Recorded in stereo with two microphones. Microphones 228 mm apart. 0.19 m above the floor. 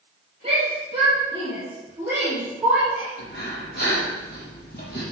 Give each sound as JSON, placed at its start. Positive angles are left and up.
{"t": 0.4, "sound": "a shout", "side_deg": -30, "distance_m": 4.5}
{"t": 3.2, "sound": "breathing", "side_deg": 45, "distance_m": 5.0}